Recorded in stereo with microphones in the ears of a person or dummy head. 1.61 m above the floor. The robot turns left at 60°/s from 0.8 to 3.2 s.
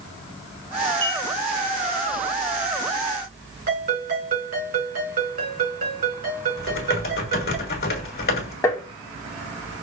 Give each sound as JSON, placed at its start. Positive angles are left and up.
{"t": 1.0, "sound": "a clink", "side_deg": 10, "distance_m": 0.8}
{"t": 3.7, "sound": "a ringtone", "side_deg": -45, "distance_m": 3.5}
{"t": 6.6, "sound": "typing on a keyboard", "side_deg": 50, "distance_m": 1.2}
{"t": 8.6, "sound": "tapping", "side_deg": 15, "distance_m": 0.9}